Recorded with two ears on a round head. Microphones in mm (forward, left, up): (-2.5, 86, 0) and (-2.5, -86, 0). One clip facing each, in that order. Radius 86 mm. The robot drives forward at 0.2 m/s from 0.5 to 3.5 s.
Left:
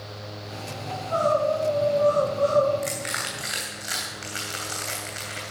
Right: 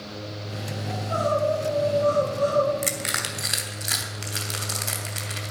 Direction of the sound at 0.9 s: 25° right (ahead or behind).